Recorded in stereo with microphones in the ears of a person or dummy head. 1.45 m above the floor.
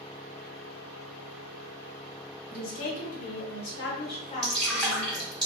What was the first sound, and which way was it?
A woman speaking, 70° left (ahead or behind).